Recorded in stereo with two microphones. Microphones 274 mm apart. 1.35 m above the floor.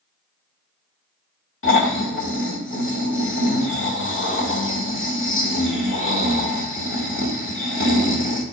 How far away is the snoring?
About 1.9 m.